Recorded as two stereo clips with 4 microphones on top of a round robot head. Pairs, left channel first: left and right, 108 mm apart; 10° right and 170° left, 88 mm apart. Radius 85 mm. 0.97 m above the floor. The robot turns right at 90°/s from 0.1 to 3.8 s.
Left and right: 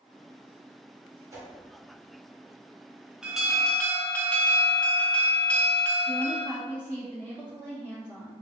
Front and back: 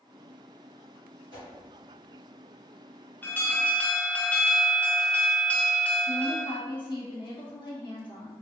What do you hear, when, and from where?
1.3 s a whoosh: 150° right, 1.4 m; by 1.5 s 135° right, 1.4 m
3.2 s an alarm: 20° right, 0.8 m; by 6.5 s 35° left, 0.8 m
6.1 s a woman speaking: 20° left, 1.5 m